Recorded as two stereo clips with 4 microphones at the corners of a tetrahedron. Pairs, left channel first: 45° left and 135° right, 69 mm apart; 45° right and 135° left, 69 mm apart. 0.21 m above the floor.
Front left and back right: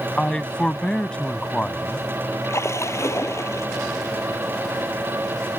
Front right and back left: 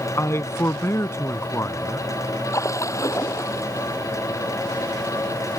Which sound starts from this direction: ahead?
A splash, at 2.4 s.